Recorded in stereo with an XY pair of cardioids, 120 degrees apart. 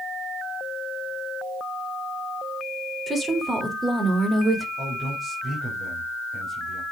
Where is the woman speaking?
25° right, 3.5 m; by 4.7 s 15° right, 2 m.